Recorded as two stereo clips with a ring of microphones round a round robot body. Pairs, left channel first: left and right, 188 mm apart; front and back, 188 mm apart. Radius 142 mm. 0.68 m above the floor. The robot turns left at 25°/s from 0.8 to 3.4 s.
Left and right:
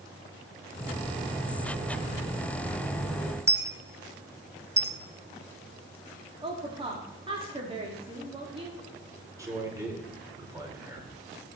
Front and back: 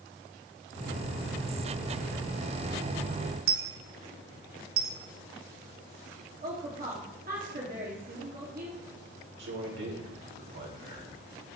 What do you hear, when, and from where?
3.5 s a dropped coin: 165° right, 0.9 m
6.4 s a woman speaking: 145° right, 1.9 m
9.4 s a man speaking: 165° right, 3 m